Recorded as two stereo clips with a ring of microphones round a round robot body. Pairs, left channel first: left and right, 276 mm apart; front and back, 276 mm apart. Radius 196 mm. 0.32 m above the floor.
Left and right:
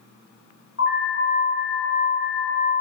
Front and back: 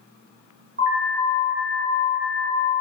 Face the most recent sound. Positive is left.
turn(degrees=130)